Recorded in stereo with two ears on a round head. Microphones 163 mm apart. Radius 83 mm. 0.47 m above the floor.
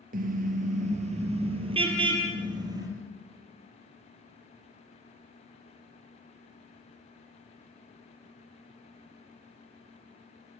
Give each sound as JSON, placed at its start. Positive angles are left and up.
{"t": 0.1, "sound": "a car horn", "side_deg": -45, "distance_m": 4.0}